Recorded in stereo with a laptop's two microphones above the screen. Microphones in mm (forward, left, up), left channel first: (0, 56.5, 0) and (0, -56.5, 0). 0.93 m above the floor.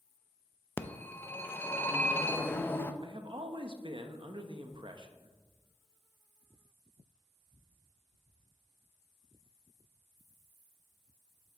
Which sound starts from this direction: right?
A man speaking, at 3.0 s.